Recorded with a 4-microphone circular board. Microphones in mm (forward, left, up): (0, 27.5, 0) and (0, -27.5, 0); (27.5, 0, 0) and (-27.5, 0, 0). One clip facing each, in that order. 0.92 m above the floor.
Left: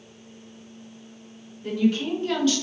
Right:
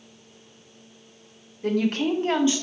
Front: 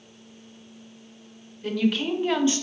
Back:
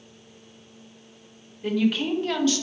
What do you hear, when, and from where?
1.6 s a woman speaking: 100° right, 0.8 m; by 2.6 s 20° right, 0.5 m